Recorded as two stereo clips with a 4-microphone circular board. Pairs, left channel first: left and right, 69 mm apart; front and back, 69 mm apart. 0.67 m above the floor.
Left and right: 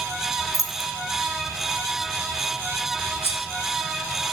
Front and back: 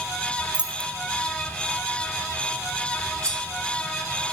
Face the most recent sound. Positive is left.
turn(degrees=140)